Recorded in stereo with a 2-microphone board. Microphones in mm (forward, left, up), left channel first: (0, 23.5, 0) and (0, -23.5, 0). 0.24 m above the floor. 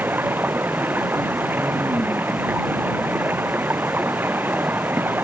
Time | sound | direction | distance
0.0 | running water | 45° right (ahead or behind) | ?